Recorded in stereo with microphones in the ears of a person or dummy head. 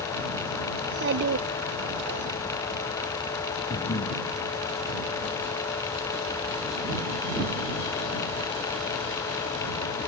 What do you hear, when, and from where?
0.8 s a child speaking: 65° right (ahead or behind)
3.7 s breathing: 35° left (ahead or behind)